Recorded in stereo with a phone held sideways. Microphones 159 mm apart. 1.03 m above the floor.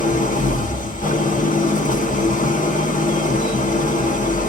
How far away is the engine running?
About 1.3 m.